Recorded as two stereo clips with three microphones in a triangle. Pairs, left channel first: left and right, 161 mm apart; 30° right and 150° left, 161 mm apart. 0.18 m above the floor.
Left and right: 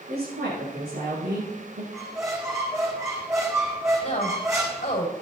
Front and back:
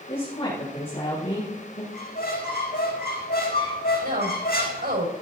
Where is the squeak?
20° right, 4 m.